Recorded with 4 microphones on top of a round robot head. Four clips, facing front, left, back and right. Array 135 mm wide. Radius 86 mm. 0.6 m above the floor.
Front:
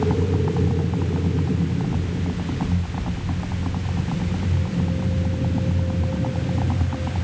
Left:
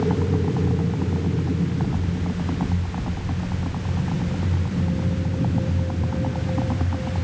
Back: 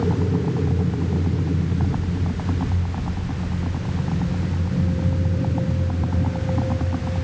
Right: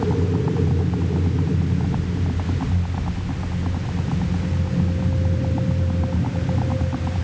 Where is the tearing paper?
No tearing paper in this recording.